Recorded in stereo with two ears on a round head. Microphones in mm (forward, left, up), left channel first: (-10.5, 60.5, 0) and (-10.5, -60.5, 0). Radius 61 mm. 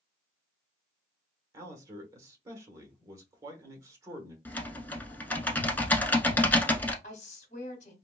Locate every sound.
1.5 s a man speaking: 25° right (ahead or behind), 1.0 m
4.5 s typing on a keyboard: 15° left (ahead or behind), 0.8 m
7.0 s a woman speaking: 60° left (ahead or behind), 1.4 m